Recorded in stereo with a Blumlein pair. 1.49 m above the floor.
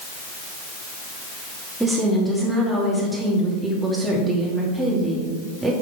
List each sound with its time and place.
1.8 s a woman speaking: 5° right, 2.5 m